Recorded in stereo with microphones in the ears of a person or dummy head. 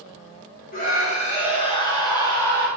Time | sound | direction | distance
0.7 | a scream | 45° left (ahead or behind) | 1.1 m